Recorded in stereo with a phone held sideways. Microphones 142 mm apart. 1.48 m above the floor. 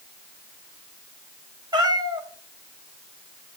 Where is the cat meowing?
30° right (ahead or behind), 4 m.